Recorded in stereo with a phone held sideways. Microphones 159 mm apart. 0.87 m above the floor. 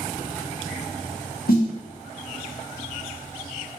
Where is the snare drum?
75° left (ahead or behind), 1.0 m.